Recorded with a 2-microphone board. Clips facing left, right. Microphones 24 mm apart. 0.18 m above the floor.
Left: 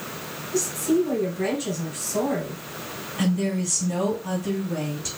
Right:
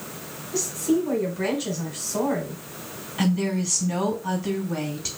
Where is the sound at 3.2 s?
30° right (ahead or behind), 1.2 m.